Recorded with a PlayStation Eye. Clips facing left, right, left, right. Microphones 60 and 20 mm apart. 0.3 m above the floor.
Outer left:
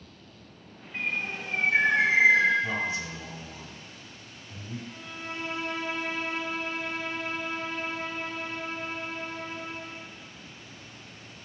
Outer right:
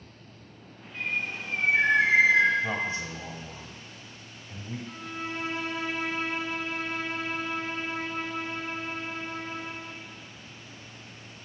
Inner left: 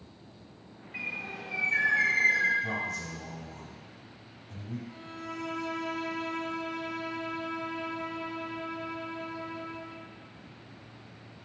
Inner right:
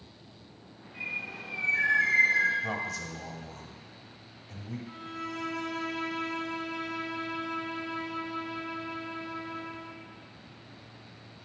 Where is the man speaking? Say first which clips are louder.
Even, even; 30° right (ahead or behind), 1.1 m.